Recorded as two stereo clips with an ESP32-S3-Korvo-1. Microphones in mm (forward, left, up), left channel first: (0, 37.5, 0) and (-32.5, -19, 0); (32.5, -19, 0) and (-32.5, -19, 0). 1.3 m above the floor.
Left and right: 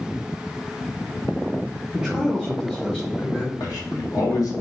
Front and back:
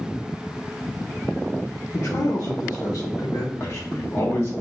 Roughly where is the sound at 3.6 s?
Ahead left.